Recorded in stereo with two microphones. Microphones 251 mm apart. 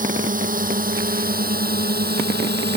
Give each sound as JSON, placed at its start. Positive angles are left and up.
{"t": 0.0, "sound": "a drone", "side_deg": -30}